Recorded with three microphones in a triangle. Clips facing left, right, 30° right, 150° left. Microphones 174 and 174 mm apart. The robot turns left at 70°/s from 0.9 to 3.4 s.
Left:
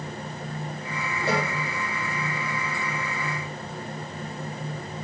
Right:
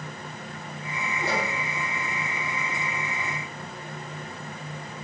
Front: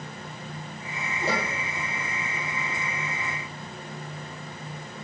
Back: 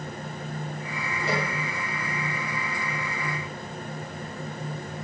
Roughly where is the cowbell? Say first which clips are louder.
Left 4 dB, even; ahead left.